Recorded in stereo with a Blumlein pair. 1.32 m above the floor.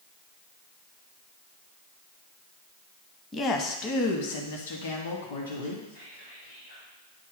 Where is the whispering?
65° left, 1.7 m.